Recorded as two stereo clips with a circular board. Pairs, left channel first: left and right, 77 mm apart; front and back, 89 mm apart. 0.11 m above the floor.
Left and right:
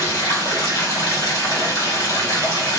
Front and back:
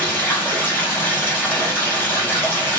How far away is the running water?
About 2 m.